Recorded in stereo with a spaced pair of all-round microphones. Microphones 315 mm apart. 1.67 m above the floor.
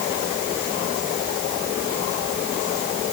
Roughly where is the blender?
I don't hear a blender.